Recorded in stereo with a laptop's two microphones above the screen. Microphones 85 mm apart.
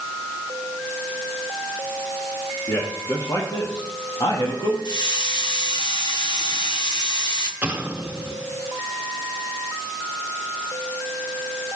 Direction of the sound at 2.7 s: 40° left (ahead or behind).